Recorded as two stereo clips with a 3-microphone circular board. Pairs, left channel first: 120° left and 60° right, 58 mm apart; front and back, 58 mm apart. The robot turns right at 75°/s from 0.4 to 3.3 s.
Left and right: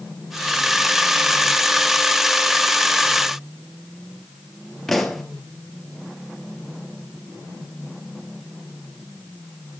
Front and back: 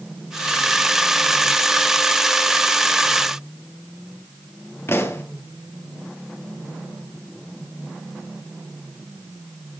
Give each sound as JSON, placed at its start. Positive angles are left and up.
{"t": 4.9, "sound": "a pop", "azimuth_deg": 35, "distance_m": 1.9}